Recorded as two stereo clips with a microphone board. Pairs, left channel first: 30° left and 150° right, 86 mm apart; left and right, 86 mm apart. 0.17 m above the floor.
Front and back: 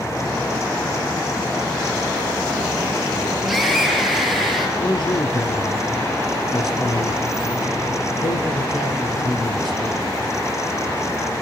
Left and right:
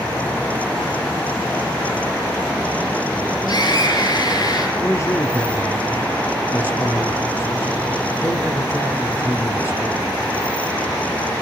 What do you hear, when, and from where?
3.5 s a scream: 120° left, 4.5 m
4.8 s a man speaking: 40° left, 3.5 m